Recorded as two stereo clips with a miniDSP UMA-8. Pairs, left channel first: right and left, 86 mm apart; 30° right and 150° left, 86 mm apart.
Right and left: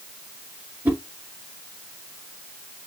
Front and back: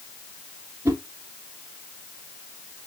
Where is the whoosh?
135° left, 1.3 m.